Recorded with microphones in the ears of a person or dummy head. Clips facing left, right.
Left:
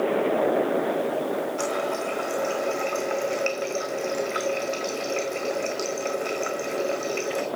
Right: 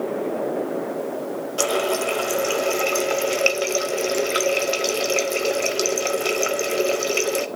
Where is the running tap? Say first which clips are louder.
Right 5 dB; 45° right (ahead or behind), 0.7 m.